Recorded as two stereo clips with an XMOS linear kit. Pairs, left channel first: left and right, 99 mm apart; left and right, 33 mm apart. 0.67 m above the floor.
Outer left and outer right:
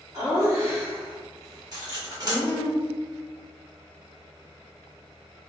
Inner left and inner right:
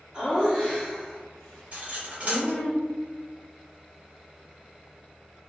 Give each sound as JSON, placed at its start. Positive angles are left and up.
{"t": 0.1, "sound": "laughter", "side_deg": -30, "distance_m": 1.4}
{"t": 1.7, "sound": "cutlery clinking", "side_deg": -40, "distance_m": 1.2}